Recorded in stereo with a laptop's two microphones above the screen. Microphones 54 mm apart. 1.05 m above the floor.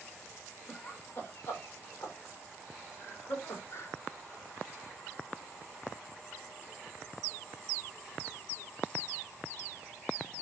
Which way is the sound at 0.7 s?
40° left (ahead or behind).